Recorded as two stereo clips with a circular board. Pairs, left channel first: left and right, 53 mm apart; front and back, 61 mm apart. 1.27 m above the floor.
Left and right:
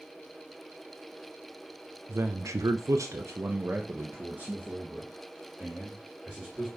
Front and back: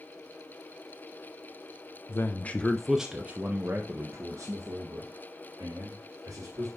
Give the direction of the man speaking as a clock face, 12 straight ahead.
2 o'clock.